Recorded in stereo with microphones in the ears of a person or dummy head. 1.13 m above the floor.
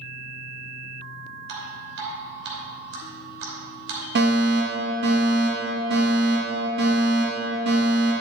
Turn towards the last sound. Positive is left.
turn(degrees=-50)  # may be behind; listen again after turning